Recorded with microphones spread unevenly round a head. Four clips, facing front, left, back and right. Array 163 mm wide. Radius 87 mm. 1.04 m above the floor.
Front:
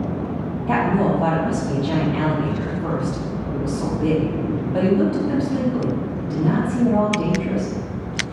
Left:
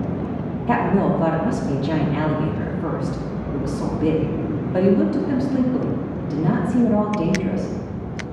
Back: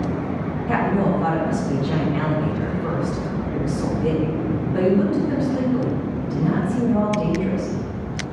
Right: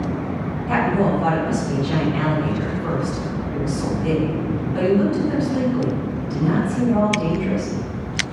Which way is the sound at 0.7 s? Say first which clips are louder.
Even, front 2 dB; 80° left.